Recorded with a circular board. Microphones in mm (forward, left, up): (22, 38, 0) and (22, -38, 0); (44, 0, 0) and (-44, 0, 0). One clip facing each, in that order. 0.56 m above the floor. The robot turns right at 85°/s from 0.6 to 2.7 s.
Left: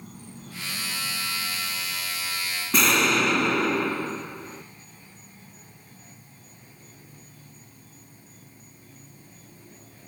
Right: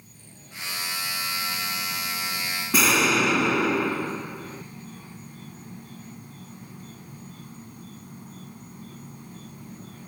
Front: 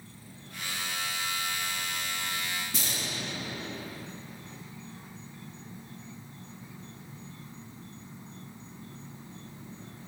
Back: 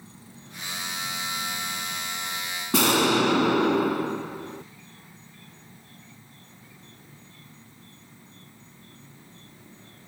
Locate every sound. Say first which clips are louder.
0.0 s an insect: left 9 dB, back 2 dB; 110° left; by 10.1 s 70° right
2.7 s an explosion: even, back 17 dB; 175° right